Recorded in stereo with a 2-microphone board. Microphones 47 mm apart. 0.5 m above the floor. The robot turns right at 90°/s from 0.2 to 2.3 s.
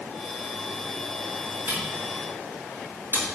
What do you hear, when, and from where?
1.7 s a camera shutter: 55° right (ahead or behind), 4.5 m; by 3.2 s 65° right (ahead or behind), 4.5 m